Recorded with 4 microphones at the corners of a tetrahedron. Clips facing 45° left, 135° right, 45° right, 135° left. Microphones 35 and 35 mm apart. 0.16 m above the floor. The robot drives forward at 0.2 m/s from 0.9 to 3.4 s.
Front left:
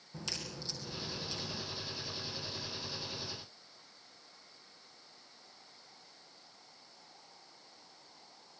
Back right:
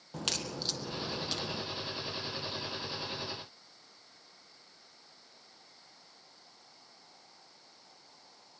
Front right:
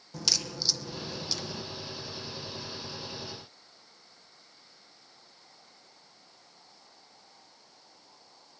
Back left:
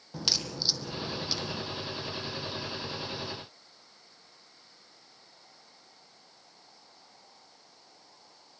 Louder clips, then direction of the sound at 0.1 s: Back right 7 dB, even; 155° right.